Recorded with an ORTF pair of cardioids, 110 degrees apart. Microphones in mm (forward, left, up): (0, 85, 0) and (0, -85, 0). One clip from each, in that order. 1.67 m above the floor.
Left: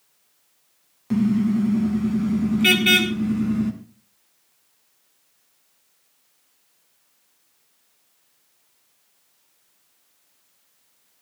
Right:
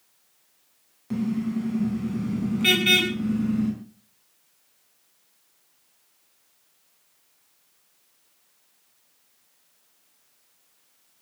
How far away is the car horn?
About 7 m.